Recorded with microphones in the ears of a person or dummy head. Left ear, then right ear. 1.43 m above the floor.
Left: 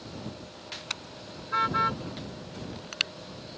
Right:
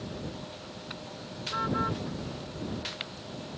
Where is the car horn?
75° left (ahead or behind); by 3.1 s 80° left.